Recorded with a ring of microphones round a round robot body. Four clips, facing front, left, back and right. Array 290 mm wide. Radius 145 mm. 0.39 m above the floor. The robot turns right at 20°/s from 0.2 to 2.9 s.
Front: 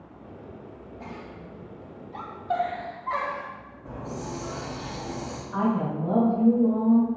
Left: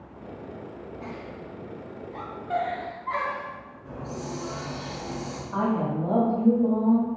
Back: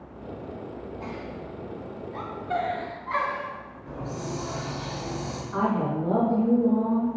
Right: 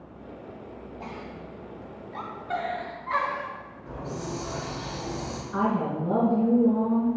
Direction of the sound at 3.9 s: 10° left.